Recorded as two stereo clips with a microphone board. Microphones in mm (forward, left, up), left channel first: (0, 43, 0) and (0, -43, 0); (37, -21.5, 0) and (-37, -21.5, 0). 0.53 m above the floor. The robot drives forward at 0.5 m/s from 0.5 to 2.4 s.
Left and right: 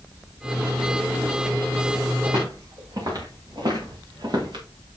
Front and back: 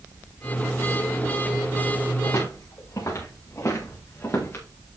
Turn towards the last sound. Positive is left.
turn(degrees=-60)